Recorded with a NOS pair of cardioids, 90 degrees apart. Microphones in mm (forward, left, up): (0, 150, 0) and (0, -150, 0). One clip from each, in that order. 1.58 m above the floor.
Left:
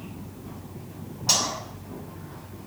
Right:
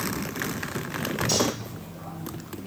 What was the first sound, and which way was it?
Cutlery clinking, 60° left.